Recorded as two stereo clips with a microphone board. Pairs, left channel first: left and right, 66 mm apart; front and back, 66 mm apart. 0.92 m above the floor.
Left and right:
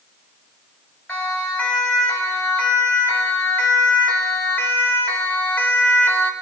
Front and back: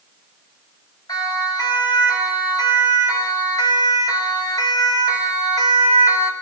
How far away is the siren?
About 8.5 m.